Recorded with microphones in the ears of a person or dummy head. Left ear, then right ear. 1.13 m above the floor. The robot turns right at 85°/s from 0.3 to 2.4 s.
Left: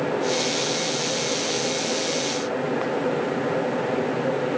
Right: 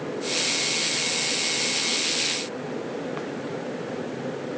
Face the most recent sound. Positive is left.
No sound to turn to.